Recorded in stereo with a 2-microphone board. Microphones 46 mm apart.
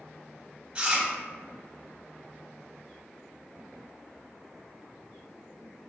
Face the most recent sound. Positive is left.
turn(degrees=-25)  # may be behind; listen again after turning